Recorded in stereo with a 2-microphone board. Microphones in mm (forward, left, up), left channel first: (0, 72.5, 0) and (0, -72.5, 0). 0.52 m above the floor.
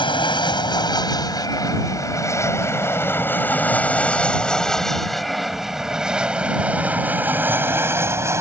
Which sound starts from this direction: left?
An aircraft, at 0.0 s.